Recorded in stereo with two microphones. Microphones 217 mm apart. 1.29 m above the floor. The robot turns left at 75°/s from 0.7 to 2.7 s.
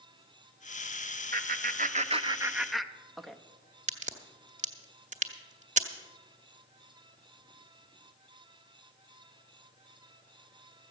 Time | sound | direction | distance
1.3 | laughter | 40° right (ahead or behind) | 0.7 m
3.9 | a crack | 35° right (ahead or behind) | 0.9 m